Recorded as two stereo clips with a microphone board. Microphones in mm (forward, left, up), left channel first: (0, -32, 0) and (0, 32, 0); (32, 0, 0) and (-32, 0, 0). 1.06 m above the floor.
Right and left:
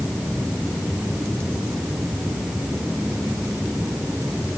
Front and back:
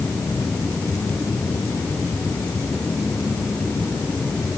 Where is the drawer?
I don't hear a drawer.